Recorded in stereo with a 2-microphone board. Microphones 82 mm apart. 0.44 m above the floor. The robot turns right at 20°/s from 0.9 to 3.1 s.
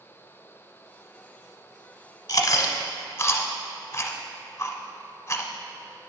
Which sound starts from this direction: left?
Chewing, at 2.3 s.